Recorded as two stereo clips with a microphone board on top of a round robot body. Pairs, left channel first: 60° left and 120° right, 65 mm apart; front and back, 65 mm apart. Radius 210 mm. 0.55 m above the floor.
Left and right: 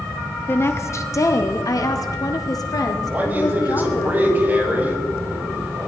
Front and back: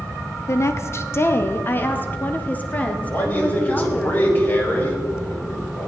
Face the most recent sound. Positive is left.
turn(degrees=-60)